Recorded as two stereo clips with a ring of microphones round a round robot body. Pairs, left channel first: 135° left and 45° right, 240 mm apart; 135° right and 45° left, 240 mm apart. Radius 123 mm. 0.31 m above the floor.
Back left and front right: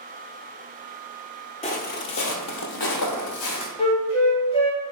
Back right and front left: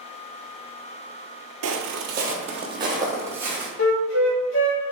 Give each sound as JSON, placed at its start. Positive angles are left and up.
{"t": 1.6, "sound": "footsteps", "azimuth_deg": 70, "distance_m": 0.6}
{"t": 3.8, "sound": "a flute", "azimuth_deg": -160, "distance_m": 0.8}